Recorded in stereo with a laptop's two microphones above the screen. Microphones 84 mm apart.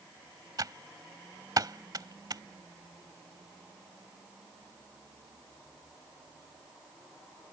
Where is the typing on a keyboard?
45° right (ahead or behind).